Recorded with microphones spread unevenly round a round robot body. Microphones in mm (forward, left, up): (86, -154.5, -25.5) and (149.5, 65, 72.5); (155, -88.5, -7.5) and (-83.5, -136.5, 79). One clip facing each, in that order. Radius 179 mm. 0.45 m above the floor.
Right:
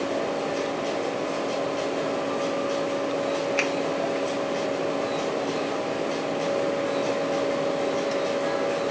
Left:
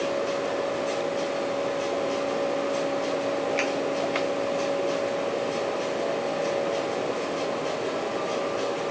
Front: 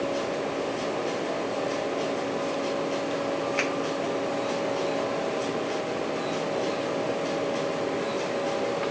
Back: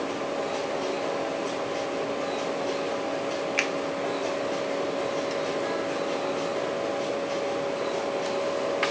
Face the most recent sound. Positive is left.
turn(degrees=-120)